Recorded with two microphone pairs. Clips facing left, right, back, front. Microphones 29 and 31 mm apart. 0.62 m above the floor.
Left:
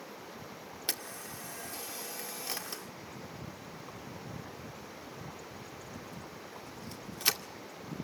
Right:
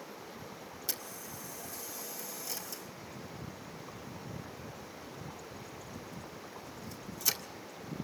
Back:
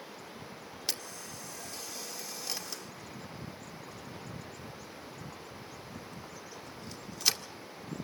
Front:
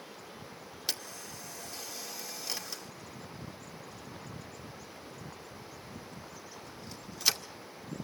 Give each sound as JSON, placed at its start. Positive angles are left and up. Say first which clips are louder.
{"t": 0.9, "sound": "a camera shutter", "louder": "left 4 dB, even", "azimuth_deg": 85, "distance_m": 2.0}